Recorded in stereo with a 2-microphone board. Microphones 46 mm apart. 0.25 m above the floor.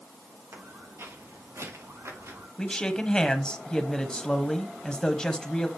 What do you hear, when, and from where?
0.5 s footsteps: 70° right (ahead or behind), 6 m; by 2.5 s 90° right, 6.5 m
2.6 s a man speaking: 15° left (ahead or behind), 1.3 m